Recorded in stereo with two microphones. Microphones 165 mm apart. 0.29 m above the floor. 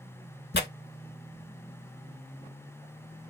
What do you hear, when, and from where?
0.5 s tearing paper: 85° left, 0.5 m